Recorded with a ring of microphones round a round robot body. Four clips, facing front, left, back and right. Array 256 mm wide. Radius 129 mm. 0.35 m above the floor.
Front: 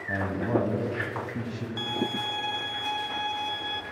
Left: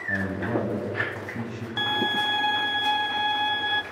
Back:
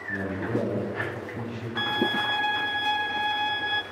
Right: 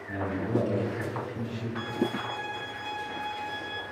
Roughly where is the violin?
Left.